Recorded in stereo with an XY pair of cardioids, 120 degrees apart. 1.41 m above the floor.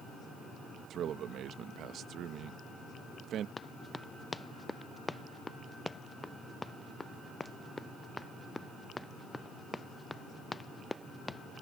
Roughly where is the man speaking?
Ahead right.